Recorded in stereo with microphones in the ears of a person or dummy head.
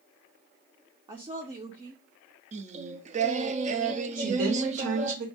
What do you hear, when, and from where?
1.1 s a woman speaking: 25° right (ahead or behind), 0.5 m
2.5 s singing: 40° right (ahead or behind), 0.5 m
4.2 s a woman speaking: 80° right, 1.2 m